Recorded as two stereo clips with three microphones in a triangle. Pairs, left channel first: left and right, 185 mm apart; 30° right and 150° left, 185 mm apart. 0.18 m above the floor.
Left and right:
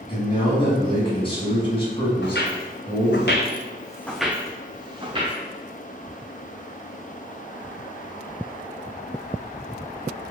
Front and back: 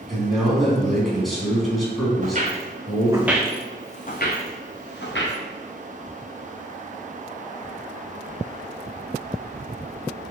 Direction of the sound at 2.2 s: 105° left.